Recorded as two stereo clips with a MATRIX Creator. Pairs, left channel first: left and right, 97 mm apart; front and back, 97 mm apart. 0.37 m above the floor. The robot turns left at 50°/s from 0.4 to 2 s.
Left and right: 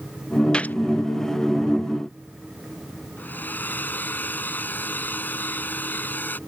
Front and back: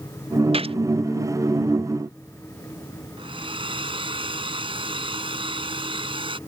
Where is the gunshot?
170° left; by 0.8 s 160° left.